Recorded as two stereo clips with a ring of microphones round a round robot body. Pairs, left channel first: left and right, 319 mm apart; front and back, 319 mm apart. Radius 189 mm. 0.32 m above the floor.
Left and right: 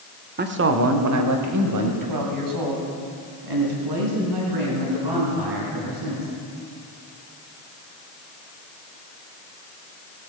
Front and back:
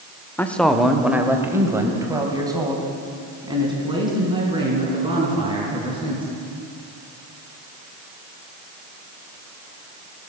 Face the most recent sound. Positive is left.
turn(degrees=-105)